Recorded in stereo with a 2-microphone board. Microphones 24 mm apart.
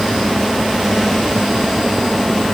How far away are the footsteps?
I don't hear footsteps.